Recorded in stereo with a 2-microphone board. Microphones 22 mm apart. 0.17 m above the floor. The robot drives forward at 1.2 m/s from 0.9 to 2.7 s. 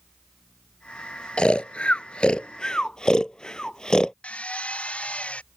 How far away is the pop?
I don't hear a pop.